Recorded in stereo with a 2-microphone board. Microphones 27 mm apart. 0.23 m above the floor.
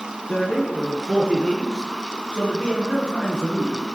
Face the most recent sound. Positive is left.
turn(degrees=40)  # may be behind; listen again after turning